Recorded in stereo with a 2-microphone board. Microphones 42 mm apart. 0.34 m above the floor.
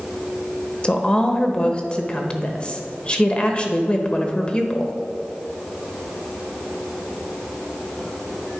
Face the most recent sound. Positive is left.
turn(degrees=25)  # may be behind; listen again after turning